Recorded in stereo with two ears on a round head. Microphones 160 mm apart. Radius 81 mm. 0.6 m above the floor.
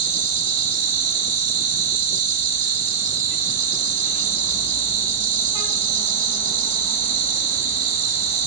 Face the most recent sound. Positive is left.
turn(degrees=-50)  # may be behind; listen again after turning